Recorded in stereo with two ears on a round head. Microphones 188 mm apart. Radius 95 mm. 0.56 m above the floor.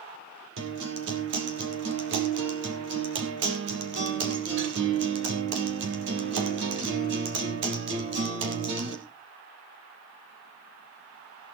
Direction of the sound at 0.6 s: 60° right (ahead or behind).